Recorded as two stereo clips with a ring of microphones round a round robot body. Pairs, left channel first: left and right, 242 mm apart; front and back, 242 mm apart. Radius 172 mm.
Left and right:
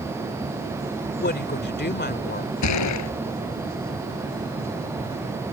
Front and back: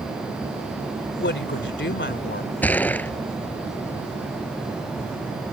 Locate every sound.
1.2 s a woman speaking: 45° left
2.6 s a gunshot: 85° left